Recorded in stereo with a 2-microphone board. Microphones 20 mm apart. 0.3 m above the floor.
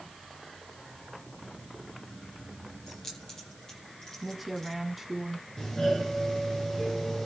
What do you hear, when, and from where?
2.9 s keys jangling: 15° left (ahead or behind), 8.5 m; by 4.8 s 20° left (ahead or behind), 9.5 m
4.2 s a woman speaking: 10° right (ahead or behind), 2.5 m
5.6 s a doorbell: 25° left (ahead or behind), 6.5 m